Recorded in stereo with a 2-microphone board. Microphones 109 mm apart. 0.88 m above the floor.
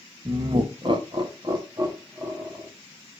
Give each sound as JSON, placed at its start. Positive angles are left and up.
{"t": 0.2, "sound": "laughter", "side_deg": -50, "distance_m": 0.8}